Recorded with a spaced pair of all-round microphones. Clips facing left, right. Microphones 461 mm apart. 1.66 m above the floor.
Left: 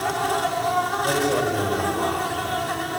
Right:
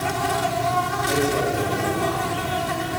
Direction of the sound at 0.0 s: 45° right (ahead or behind).